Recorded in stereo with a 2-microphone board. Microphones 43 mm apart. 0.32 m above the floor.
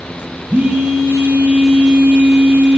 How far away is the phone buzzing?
About 3 m.